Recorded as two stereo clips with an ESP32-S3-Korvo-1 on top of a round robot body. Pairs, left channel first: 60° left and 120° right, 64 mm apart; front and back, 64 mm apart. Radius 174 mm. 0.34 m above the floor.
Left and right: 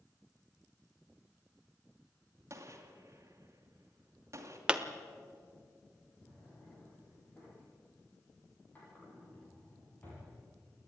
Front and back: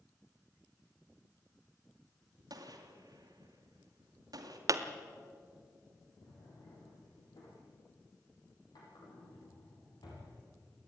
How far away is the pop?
About 1.4 m.